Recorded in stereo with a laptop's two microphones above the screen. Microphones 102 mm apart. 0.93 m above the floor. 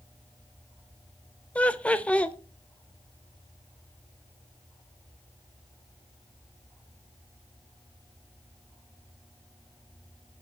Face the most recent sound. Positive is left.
turn(degrees=15)  # may be behind; listen again after turning